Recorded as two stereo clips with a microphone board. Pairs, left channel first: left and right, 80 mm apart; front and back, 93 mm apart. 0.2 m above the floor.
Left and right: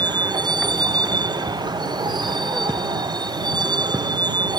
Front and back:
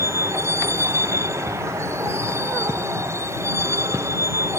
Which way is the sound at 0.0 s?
120° right.